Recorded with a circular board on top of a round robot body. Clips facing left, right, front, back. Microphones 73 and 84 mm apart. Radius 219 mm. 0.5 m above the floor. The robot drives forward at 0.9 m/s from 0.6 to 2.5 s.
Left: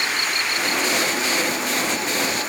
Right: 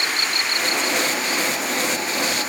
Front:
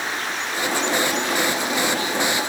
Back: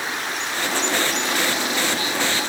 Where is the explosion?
No explosion in this recording.